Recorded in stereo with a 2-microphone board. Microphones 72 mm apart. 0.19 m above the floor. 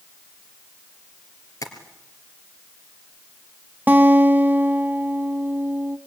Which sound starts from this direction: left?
Tapping, at 1.6 s.